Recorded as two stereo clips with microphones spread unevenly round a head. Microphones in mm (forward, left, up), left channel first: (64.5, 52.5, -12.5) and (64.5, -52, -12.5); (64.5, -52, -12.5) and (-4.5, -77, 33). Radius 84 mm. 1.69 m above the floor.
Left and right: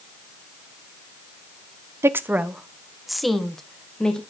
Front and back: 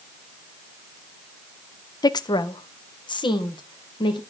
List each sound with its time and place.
2.0 s a woman speaking: 25° right, 0.8 m; by 4.2 s 5° left, 2.5 m